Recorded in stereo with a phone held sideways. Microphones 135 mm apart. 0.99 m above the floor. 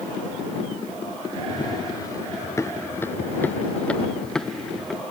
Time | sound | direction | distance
1.5 | running footsteps | 30° left (ahead or behind) | ?